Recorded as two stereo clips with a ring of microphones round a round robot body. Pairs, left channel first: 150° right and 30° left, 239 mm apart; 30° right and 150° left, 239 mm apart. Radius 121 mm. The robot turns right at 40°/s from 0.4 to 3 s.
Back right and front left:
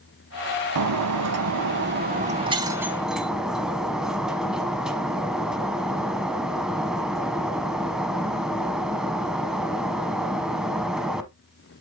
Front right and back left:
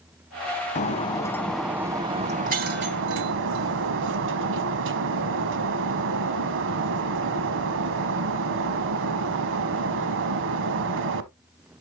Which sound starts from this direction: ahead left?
Breaking glass, at 0.8 s.